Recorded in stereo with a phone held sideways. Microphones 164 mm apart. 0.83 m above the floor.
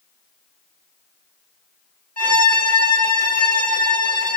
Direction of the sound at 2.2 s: 55° right (ahead or behind).